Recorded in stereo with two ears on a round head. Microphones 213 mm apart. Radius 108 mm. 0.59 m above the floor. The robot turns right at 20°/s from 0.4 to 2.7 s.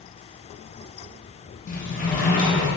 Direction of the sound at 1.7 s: 35° left (ahead or behind).